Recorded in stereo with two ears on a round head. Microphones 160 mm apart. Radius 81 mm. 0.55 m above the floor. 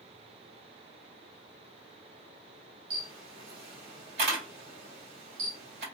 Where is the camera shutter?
60° right (ahead or behind), 2.5 m.